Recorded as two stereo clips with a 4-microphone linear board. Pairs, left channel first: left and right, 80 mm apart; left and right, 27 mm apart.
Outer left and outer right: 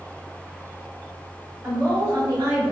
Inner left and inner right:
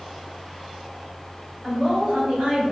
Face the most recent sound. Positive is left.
turn(degrees=-30)  # may be behind; listen again after turning